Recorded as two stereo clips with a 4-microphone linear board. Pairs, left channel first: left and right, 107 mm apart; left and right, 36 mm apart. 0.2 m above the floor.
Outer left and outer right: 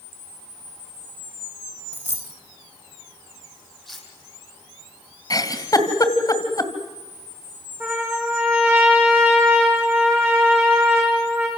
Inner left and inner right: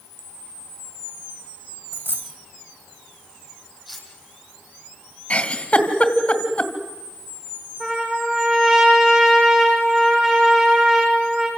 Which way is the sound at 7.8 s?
25° right (ahead or behind).